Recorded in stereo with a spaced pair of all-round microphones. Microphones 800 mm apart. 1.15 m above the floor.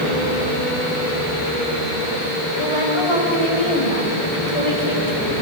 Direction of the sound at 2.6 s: 35° left (ahead or behind).